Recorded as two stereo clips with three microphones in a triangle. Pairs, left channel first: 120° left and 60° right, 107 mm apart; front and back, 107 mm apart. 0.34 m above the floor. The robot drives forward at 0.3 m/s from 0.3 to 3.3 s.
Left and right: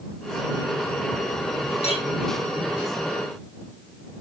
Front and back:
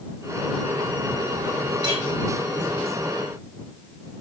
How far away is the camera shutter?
I don't hear a camera shutter.